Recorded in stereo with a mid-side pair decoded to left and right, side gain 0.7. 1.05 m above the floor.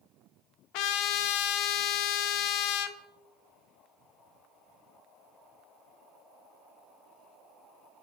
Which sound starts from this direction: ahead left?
A trumpet, at 0.7 s.